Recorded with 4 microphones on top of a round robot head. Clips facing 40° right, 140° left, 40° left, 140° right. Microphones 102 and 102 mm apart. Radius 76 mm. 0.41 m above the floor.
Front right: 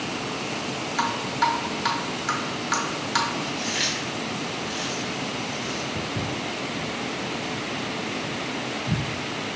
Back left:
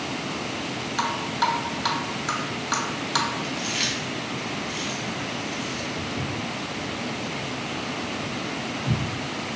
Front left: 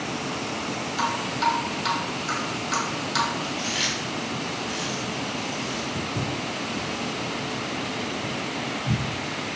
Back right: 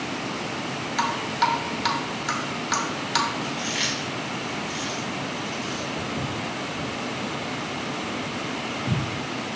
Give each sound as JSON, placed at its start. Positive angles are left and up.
{"t": 1.0, "sound": "dripping", "azimuth_deg": -150, "distance_m": 0.8}
{"t": 3.4, "sound": "chewing", "azimuth_deg": 95, "distance_m": 1.6}
{"t": 6.0, "sound": "footsteps", "azimuth_deg": -20, "distance_m": 1.0}